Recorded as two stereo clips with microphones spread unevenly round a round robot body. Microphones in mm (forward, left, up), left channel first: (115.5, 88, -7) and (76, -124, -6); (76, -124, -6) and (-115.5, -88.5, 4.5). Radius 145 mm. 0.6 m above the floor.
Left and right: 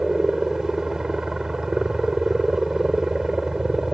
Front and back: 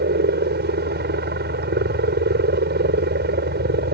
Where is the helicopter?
170° left.